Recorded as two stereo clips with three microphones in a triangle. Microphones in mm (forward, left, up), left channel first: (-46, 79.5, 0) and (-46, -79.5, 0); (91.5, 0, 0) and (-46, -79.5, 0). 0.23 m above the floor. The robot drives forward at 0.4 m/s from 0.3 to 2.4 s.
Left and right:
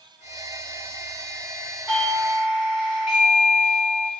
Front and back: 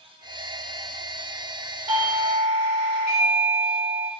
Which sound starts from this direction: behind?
A doorbell, at 1.9 s.